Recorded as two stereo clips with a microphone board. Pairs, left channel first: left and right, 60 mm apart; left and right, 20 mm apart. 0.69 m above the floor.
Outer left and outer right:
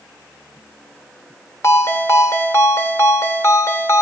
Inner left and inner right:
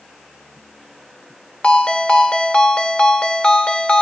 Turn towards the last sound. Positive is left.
turn(degrees=60)  # may be behind; listen again after turning